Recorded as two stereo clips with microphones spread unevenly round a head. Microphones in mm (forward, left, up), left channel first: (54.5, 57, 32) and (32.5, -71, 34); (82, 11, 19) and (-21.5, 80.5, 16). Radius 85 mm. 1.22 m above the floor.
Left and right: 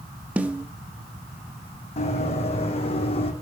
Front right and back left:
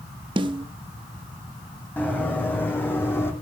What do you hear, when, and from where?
0.4 s a snare drum: 175° right, 0.7 m
2.0 s running footsteps: 40° left, 5 m